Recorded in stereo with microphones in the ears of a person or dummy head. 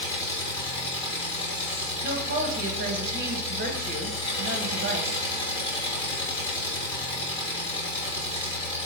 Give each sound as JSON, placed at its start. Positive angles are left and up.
{"t": 0.0, "sound": "an engine running", "side_deg": 30, "distance_m": 2.5}
{"t": 2.0, "sound": "a woman speaking", "side_deg": -45, "distance_m": 0.9}